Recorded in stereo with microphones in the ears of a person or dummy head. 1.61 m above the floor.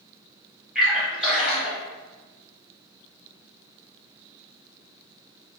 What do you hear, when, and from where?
0.8 s a splash: 5° right (ahead or behind), 1.5 m